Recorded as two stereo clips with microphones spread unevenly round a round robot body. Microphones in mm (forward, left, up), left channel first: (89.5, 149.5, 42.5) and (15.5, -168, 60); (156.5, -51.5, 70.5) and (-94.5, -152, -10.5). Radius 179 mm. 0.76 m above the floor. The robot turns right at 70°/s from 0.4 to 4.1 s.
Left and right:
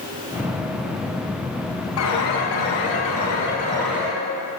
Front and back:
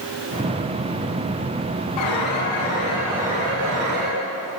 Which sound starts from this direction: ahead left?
An alarm, at 2.0 s.